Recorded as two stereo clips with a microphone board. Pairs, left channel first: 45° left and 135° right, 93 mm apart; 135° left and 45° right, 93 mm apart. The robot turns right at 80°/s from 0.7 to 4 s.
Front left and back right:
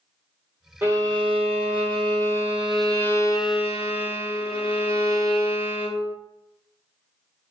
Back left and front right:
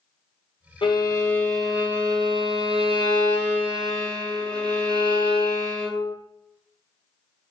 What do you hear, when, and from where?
0.8 s a violin: 155° left, 0.7 m; by 6.1 s 50° left, 0.7 m